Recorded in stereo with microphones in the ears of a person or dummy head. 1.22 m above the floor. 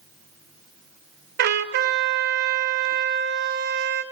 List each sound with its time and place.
1.4 s a trumpet: 55° right (ahead or behind), 0.9 m